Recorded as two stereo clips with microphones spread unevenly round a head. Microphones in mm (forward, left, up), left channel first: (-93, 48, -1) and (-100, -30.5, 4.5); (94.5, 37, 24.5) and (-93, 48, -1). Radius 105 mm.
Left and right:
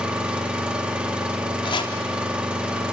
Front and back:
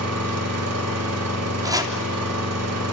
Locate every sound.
0.0 s an engine running: 175° right, 3.5 m
1.6 s chopping: 105° left, 3 m